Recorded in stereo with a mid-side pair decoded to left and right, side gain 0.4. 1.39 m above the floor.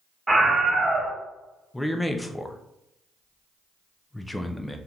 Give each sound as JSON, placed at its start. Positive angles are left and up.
{"t": 0.3, "sound": "a scream", "azimuth_deg": -25, "distance_m": 1.6}
{"t": 1.7, "sound": "a man speaking", "azimuth_deg": 15, "distance_m": 0.6}